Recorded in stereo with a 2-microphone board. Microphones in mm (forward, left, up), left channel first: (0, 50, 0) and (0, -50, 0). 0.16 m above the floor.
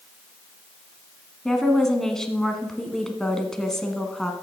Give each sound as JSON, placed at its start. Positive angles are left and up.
{"t": 1.4, "sound": "a woman speaking", "side_deg": 5, "distance_m": 1.4}